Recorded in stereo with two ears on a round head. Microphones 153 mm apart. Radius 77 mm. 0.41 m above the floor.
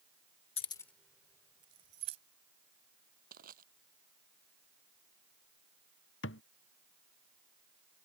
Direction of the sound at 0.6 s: 35° left (ahead or behind).